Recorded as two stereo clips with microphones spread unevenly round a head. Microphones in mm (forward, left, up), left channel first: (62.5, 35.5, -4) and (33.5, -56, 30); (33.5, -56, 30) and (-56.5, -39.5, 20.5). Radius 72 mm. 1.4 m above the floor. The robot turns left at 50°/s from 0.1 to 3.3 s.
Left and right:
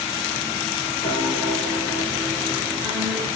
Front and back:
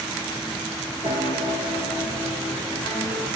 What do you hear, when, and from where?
1.0 s a piano: 45° left, 2 m; by 3.3 s 65° right, 2 m